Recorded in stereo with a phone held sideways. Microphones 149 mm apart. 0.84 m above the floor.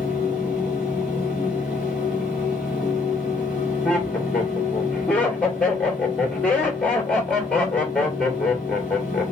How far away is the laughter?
About 2.5 m.